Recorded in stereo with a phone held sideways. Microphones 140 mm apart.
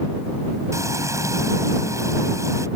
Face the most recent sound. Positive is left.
turn(degrees=-20)  # may be behind; listen again after turning